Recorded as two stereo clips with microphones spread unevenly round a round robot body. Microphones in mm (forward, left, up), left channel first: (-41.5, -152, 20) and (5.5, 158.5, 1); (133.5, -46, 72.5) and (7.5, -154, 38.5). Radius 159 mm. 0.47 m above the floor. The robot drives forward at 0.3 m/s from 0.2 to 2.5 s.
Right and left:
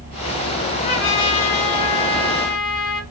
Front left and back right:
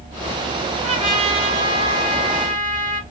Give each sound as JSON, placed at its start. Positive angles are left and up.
{"t": 0.8, "sound": "a trumpet", "azimuth_deg": -95, "distance_m": 2.5}